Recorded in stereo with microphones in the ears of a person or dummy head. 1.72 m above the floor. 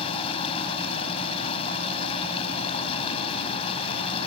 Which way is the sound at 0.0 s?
30° left (ahead or behind).